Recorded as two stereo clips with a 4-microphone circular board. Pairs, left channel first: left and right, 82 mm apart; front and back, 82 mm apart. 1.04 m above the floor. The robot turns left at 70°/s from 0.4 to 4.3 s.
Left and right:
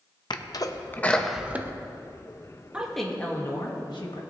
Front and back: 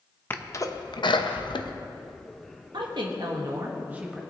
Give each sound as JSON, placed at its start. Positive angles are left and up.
{"t": 0.3, "sound": "a sneeze", "azimuth_deg": 60, "distance_m": 0.7}
{"t": 2.7, "sound": "a woman speaking", "azimuth_deg": -165, "distance_m": 1.3}